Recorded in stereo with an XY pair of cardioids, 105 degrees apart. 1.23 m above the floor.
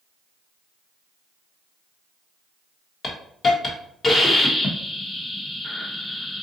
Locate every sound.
3.0 s a hiss: 30° left, 1.1 m